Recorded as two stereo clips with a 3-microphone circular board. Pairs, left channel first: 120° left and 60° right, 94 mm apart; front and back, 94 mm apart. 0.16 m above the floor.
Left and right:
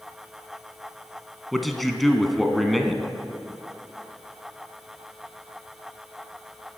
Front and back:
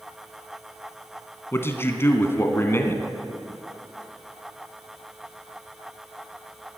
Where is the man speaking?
30° left, 1.2 m.